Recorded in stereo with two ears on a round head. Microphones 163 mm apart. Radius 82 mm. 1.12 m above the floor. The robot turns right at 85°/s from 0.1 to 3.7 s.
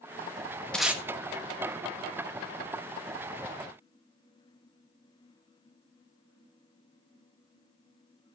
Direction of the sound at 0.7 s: 5° left (ahead or behind).